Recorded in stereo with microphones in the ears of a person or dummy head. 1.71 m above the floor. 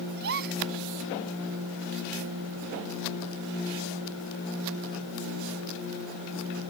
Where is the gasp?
55° right (ahead or behind).